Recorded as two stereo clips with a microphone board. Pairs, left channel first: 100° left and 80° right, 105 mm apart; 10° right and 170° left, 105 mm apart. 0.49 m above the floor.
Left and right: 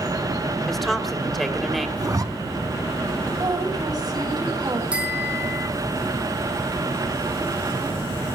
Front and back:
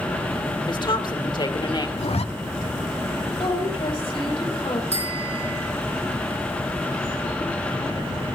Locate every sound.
0.7 s a woman speaking: 10° left, 2 m
2.0 s a zipper: 20° right, 1.0 m
3.4 s a woman speaking: 30° right, 3 m
4.9 s a bicycle bell: straight ahead, 5 m